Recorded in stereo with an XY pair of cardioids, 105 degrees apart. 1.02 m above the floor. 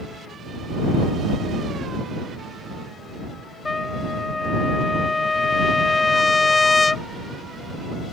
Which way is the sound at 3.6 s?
25° left.